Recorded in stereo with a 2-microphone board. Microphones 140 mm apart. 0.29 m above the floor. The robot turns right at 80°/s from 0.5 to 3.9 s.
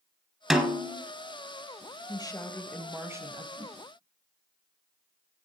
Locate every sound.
0.5 s a snare drum: straight behind, 1.8 m; by 1.0 s 140° right, 1.8 m
2.1 s a woman speaking: 125° left, 1.1 m; by 3.5 s 125° right, 1.1 m
3.6 s a whoosh: 30° right (ahead or behind), 1.5 m; by 3.8 s 40° right (ahead or behind), 1.5 m